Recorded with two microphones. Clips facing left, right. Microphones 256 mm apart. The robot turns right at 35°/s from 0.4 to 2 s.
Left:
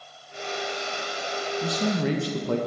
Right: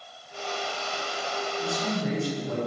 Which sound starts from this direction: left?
A man speaking, at 1.6 s.